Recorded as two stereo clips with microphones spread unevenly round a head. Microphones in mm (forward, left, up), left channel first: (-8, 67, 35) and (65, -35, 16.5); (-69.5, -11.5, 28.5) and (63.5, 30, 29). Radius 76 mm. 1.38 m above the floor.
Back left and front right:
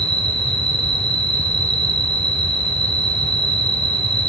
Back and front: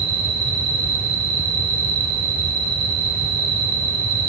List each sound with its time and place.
0.0 s an insect: straight ahead, 2.5 m